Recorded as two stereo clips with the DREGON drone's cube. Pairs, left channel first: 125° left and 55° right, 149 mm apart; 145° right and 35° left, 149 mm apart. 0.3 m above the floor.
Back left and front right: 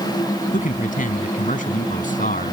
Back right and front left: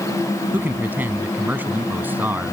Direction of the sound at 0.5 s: 110° left.